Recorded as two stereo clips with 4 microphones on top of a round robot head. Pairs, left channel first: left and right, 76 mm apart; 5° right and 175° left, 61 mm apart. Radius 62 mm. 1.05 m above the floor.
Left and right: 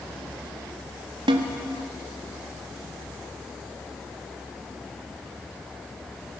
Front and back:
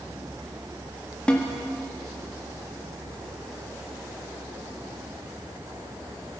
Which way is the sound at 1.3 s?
80° right.